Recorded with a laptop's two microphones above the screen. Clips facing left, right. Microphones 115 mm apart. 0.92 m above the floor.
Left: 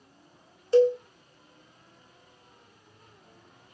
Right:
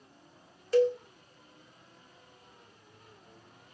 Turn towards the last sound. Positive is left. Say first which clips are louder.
# left 5 dB
turn(degrees=25)  # may be behind; listen again after turning